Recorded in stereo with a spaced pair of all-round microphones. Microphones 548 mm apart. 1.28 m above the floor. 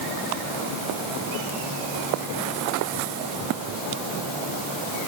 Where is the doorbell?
No doorbell in this recording.